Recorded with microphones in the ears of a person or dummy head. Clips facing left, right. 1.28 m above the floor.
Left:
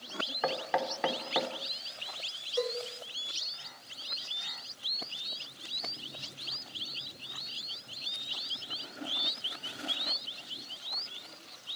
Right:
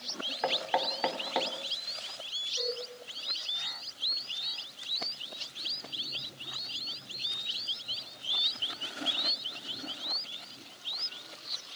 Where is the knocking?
10° left (ahead or behind), 3 m.